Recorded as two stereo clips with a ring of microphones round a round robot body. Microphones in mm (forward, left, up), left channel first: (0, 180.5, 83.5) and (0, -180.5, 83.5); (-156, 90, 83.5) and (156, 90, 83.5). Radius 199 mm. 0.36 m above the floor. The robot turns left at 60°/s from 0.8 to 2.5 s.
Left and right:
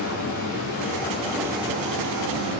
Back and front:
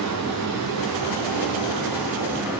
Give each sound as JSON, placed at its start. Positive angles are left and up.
{"t": 0.0, "sound": "running water", "azimuth_deg": 35, "distance_m": 2.0}